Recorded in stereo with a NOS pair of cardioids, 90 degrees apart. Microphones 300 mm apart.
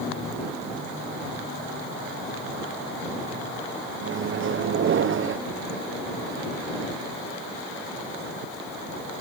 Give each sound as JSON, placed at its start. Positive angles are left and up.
{"t": 4.0, "sound": "a microwave", "azimuth_deg": -45}